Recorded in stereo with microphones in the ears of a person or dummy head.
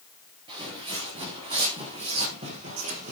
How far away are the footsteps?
About 6.5 m.